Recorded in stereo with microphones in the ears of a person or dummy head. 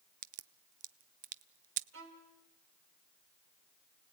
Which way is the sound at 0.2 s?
40° right (ahead or behind).